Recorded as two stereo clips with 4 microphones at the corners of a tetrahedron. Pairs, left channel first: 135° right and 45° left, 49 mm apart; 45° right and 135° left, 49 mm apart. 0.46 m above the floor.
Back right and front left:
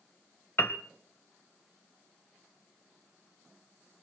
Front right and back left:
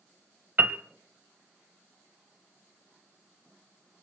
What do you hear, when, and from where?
0.6 s a piano: straight behind, 1.0 m